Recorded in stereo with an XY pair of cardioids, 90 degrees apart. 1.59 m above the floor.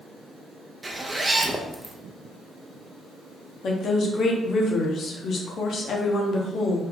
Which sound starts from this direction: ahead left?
A woman speaking, at 3.6 s.